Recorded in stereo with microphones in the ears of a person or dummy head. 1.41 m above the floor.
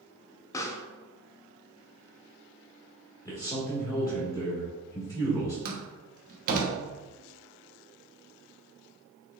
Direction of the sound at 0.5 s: 20° left (ahead or behind).